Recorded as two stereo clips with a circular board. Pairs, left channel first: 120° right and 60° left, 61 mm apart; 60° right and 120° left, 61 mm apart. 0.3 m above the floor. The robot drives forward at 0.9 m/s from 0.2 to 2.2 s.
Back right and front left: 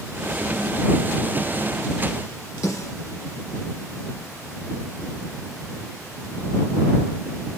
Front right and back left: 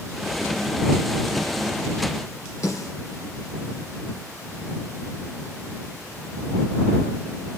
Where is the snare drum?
95° right, 4 m.